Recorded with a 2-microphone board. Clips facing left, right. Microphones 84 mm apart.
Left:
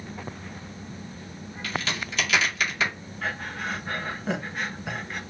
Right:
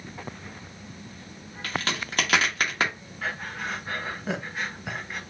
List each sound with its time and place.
1.6 s a crack: 55° right (ahead or behind), 2.0 m
3.2 s breathing: 5° right (ahead or behind), 1.2 m